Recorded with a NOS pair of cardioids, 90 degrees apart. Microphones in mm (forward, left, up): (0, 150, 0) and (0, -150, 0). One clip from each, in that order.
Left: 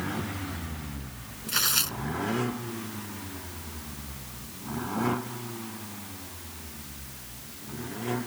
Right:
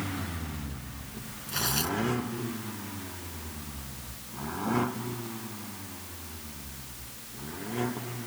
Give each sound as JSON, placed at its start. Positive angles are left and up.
{"t": 1.5, "sound": "tearing paper", "azimuth_deg": 50}